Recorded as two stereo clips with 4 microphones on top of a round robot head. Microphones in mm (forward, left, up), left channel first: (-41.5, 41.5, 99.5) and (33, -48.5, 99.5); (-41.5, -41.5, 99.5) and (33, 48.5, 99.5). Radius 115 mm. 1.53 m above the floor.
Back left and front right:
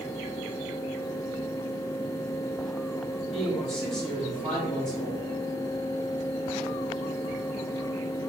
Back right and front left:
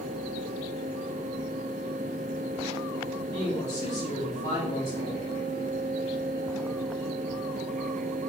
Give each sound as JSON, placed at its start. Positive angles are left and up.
{"t": 3.2, "sound": "a man speaking", "azimuth_deg": -145, "distance_m": 3.5}